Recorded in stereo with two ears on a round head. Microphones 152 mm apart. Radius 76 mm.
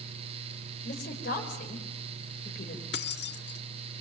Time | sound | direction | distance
0.8 | a woman speaking | 60° left (ahead or behind) | 4.5 m
2.9 | keys jangling | 70° left (ahead or behind) | 1.6 m